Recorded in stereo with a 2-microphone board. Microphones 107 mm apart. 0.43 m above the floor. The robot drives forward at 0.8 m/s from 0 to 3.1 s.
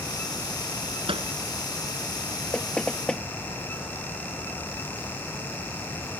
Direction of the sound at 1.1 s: 55° right (ahead or behind).